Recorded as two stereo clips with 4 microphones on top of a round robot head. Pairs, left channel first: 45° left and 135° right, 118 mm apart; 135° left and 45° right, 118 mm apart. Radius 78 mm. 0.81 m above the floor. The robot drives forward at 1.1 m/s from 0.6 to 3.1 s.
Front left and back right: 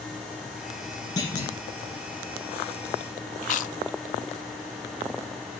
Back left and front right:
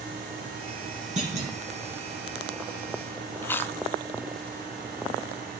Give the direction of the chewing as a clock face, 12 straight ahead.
10 o'clock.